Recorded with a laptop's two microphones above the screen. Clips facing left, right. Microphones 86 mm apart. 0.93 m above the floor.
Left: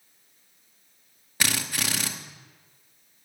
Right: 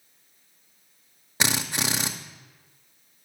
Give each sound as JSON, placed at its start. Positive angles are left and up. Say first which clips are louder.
{"t": 1.4, "sound": "a drill", "louder": "right 2 dB", "side_deg": -20, "distance_m": 0.6}